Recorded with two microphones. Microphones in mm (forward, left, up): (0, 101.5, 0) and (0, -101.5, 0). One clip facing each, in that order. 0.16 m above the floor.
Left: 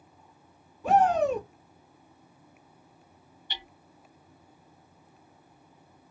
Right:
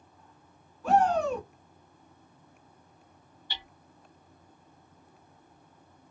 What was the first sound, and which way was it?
A shout, 20° left (ahead or behind).